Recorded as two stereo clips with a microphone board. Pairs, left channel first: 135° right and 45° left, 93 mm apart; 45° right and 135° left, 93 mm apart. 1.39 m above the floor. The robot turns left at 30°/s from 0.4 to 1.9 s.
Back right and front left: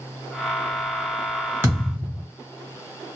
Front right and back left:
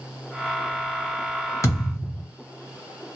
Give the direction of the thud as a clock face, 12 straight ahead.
12 o'clock.